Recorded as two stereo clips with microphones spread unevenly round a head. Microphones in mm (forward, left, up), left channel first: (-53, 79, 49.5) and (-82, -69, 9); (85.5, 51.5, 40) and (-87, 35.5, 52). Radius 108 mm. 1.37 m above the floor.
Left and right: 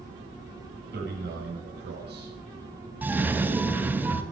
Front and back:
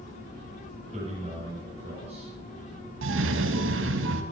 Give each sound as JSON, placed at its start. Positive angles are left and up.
{"t": 0.9, "sound": "a man speaking", "azimuth_deg": -110, "distance_m": 7.0}
{"t": 3.0, "sound": "a cough", "azimuth_deg": 180, "distance_m": 2.5}